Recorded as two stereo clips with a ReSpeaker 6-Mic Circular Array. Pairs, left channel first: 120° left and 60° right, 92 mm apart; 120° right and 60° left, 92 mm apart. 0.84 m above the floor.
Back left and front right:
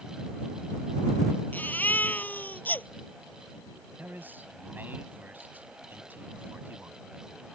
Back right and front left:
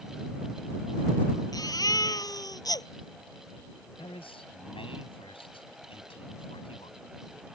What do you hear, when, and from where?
1.5 s a baby crying: 170° right
4.0 s a man speaking: 130° right